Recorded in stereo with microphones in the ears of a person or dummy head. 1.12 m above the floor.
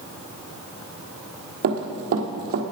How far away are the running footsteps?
About 1.5 m.